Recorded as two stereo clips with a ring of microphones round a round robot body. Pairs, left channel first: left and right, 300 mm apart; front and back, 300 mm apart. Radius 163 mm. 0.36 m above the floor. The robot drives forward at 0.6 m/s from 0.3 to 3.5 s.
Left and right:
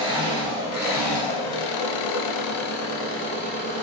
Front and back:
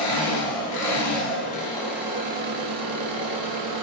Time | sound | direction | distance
0.0 | an engine running | 30° left | 1.1 m